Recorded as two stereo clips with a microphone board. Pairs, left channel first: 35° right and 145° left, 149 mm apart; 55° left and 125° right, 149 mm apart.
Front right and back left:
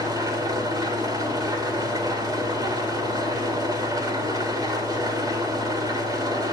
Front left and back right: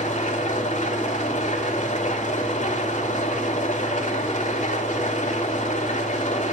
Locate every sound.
0.0 s an engine running: 85° left, 2.0 m